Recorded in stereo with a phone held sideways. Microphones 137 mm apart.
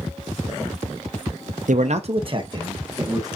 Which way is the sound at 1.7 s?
70° right (ahead or behind).